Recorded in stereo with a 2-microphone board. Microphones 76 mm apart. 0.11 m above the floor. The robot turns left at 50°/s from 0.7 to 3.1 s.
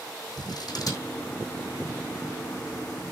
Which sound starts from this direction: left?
Scissors, at 0.4 s.